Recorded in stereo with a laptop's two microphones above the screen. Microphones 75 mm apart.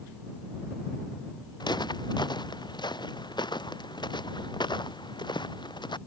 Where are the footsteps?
70° left (ahead or behind); by 6.0 s 85° left.